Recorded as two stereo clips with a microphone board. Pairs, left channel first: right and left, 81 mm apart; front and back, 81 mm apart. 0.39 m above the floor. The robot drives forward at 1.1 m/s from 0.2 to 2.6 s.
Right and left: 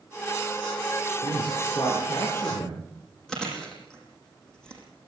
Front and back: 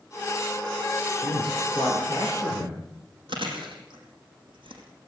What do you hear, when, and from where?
1.2 s a man speaking: 115° right, 9.5 m; by 2.8 s 125° right, 10 m
3.3 s chewing: 170° right, 7 m